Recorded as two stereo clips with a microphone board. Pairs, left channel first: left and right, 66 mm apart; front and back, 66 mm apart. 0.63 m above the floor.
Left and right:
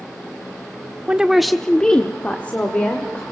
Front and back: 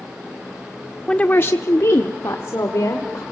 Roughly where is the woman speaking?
Ahead right.